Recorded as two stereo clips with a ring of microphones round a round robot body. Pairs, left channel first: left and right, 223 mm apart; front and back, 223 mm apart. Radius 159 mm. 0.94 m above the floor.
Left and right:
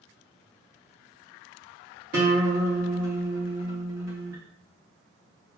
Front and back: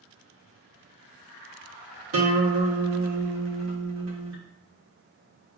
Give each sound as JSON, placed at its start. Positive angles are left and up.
{"t": 2.1, "sound": "a guitar", "azimuth_deg": -150, "distance_m": 1.4}